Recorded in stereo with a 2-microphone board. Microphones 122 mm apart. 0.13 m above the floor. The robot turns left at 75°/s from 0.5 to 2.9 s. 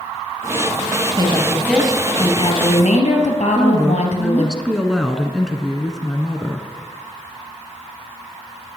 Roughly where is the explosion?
I don't hear an explosion.